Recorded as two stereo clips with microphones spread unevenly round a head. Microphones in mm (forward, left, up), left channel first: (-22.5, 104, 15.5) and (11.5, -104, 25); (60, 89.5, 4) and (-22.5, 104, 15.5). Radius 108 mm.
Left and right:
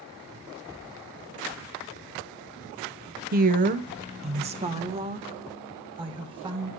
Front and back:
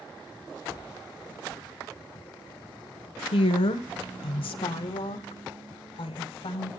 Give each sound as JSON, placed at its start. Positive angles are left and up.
{"t": 3.3, "sound": "a woman speaking", "azimuth_deg": -30, "distance_m": 0.6}